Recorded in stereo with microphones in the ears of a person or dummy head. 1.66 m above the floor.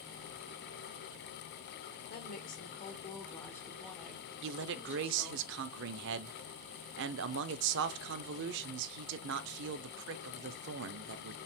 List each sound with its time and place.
2.1 s a woman speaking: 55° left (ahead or behind), 1.1 m; by 5.4 s 20° right (ahead or behind), 1.6 m
4.4 s a man speaking: 65° right (ahead or behind), 0.5 m